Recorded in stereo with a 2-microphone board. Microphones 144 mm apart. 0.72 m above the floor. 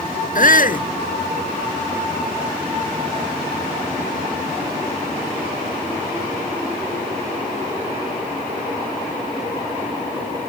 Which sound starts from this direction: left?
A shout, at 0.3 s.